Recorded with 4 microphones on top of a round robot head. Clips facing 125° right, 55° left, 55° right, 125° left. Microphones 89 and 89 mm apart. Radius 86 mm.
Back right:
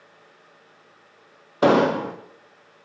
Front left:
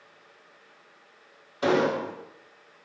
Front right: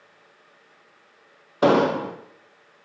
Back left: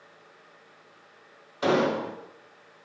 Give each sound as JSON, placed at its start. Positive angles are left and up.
{"t": 1.6, "sound": "an explosion", "azimuth_deg": -95, "distance_m": 0.7}